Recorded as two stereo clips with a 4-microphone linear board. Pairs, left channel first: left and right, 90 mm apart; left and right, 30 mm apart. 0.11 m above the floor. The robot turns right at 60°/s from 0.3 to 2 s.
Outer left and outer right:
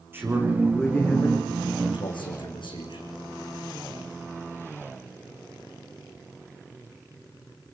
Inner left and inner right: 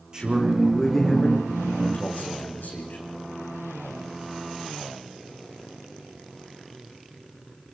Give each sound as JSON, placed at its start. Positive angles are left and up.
{"t": 0.1, "sound": "a man speaking", "azimuth_deg": -25, "distance_m": 7.5}